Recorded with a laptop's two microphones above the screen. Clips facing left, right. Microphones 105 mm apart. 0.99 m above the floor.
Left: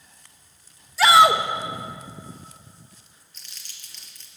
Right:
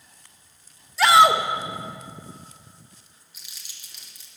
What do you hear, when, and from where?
1.0 s a shout: centre (ahead or behind), 0.6 m
3.3 s crumpling: 10° right (ahead or behind), 0.9 m